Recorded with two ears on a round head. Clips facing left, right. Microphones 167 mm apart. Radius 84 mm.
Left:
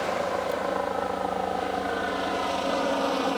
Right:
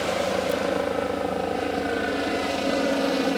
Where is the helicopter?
35° right (ahead or behind); by 3.4 s 25° right (ahead or behind).